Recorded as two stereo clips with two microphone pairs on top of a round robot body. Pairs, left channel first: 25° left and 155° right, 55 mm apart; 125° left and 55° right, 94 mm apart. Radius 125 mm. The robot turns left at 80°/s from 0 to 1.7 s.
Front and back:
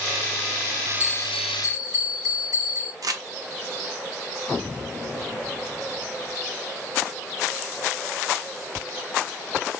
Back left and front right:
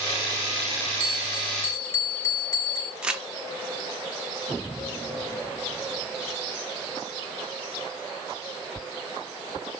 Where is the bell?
120° right, 1.1 m; by 2.9 s 175° right, 1.1 m.